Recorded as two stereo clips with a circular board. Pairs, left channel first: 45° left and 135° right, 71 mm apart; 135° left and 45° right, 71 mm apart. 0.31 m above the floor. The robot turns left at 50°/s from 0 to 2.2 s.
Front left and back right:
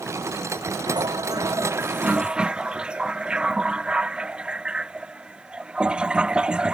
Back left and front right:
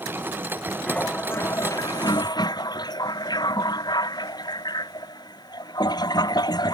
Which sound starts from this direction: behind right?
A toilet flushing, at 0.9 s.